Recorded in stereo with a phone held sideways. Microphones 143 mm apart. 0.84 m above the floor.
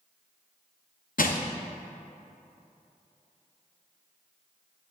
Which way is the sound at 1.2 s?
75° left (ahead or behind).